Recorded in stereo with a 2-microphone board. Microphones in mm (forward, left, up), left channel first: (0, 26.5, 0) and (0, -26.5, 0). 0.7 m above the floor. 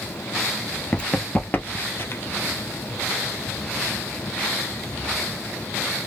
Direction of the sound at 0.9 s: 15° left (ahead or behind).